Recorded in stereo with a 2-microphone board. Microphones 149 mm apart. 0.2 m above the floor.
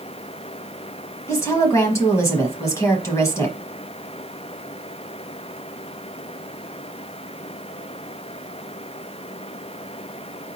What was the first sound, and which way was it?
A woman speaking, 20° left (ahead or behind).